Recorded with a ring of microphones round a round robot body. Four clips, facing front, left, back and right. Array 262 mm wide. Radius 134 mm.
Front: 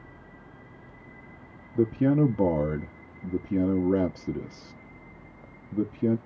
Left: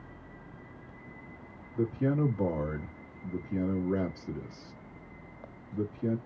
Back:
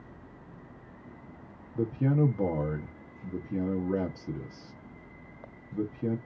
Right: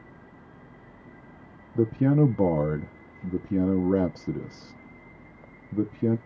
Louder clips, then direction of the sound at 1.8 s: Right 7 dB, front 5 dB; 65° right.